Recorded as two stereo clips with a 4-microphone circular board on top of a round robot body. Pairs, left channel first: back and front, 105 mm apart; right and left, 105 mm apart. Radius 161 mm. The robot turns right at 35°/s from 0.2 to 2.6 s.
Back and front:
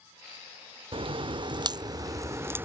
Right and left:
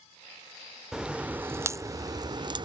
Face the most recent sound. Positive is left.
turn(degrees=65)